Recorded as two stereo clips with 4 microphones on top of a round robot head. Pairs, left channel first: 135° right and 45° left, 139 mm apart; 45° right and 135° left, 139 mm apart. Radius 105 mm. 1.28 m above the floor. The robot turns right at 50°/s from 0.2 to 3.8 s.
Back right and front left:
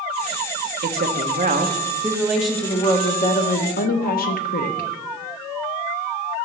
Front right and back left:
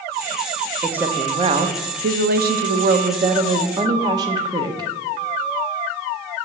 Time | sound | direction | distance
0.8 | a woman speaking | 50° left | 1.1 m